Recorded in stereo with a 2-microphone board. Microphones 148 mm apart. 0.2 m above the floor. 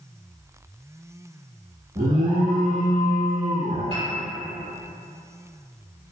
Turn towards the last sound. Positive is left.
turn(degrees=-40)  # may be behind; listen again after turning